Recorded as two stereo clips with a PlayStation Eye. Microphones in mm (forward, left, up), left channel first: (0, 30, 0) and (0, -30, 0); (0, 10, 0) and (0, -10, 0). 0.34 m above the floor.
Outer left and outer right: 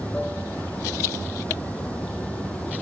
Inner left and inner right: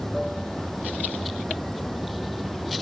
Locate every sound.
0.0 s running water: 20° left (ahead or behind), 3.5 m